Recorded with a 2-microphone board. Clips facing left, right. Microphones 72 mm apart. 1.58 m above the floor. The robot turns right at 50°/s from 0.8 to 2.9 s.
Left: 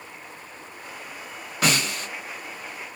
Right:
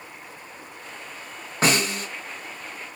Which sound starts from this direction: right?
A snare drum, at 1.6 s.